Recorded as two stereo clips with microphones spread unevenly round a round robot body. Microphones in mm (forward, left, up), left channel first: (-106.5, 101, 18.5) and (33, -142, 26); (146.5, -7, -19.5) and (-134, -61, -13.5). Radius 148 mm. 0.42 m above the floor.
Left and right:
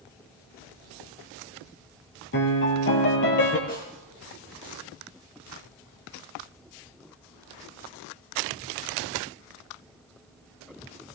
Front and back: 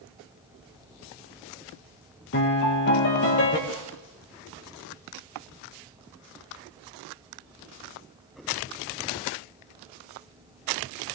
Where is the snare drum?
60° left, 3.5 m.